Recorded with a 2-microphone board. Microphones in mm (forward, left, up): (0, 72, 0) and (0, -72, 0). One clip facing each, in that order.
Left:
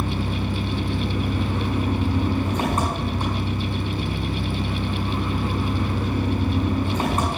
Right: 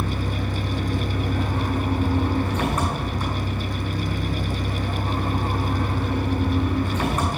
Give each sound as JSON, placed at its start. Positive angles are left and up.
{"t": 0.0, "sound": "an engine running", "side_deg": 30, "distance_m": 5.5}